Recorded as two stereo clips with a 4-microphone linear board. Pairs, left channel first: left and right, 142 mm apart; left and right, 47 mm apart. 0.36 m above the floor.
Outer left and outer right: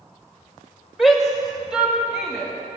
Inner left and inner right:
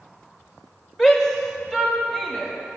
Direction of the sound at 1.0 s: Centre (ahead or behind).